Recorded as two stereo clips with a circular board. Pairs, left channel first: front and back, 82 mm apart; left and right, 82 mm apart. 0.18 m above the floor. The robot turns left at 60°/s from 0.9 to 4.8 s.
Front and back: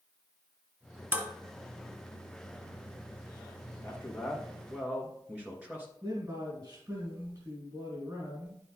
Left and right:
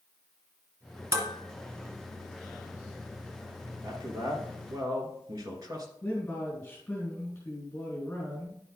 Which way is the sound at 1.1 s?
125° right.